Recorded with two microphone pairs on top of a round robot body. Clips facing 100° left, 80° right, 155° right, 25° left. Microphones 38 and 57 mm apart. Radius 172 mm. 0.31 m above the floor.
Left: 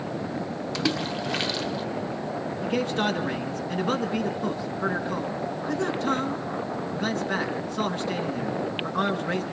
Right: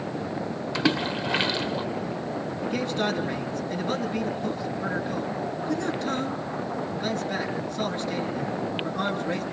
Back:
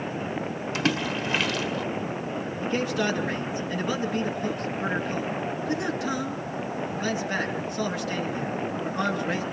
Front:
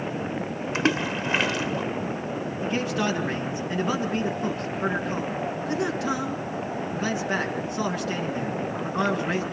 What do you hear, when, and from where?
0.8 s a splash: 15° right, 1.5 m
2.6 s a man speaking: 75° left, 6.5 m